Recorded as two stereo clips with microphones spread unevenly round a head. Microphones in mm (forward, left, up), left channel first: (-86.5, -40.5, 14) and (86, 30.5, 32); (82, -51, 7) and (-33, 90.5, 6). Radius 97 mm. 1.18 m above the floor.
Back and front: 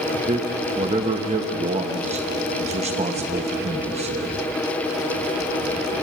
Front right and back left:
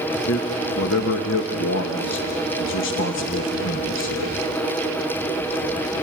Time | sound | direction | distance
0.3 | a man speaking | 35° right | 1.2 m